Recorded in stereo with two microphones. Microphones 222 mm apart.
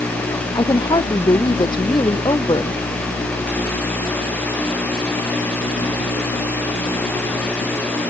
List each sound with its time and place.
0.6 s a woman speaking: 20° left (ahead or behind)